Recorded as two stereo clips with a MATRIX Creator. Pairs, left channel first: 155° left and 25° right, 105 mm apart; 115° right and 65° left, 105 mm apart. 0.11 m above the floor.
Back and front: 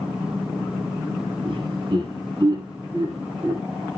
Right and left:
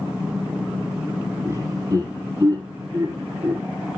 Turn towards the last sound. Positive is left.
turn(degrees=30)